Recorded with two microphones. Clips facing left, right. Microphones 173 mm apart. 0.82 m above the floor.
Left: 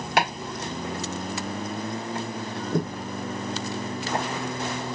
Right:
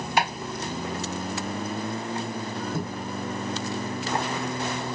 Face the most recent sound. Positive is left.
turn(degrees=75)  # may be behind; listen again after turning